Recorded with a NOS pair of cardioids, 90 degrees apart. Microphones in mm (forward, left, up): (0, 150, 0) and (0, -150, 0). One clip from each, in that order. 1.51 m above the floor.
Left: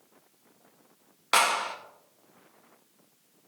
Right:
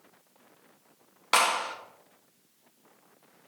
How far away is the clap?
About 1.5 m.